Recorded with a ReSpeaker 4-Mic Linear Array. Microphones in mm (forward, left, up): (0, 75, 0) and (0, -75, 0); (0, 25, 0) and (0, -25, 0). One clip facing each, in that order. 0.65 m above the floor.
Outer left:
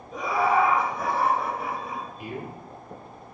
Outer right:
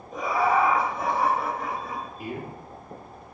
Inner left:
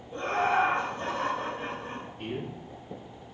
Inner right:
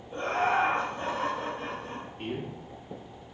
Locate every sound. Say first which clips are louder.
0.1 s laughter: even, even; 50° right (ahead or behind), 1.5 m; by 2.1 s 30° left (ahead or behind), 1.0 m
2.2 s a man speaking: outer right 1 dB, even; 40° right (ahead or behind), 1.1 m